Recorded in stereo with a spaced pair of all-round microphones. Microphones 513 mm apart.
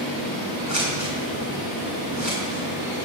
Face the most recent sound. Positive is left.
turn(degrees=-35)  # may be behind; listen again after turning